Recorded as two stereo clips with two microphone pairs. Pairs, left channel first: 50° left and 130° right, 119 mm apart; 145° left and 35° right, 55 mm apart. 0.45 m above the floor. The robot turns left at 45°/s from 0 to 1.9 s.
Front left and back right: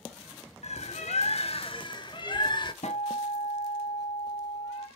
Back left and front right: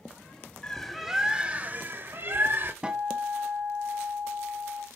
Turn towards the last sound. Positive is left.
turn(degrees=35)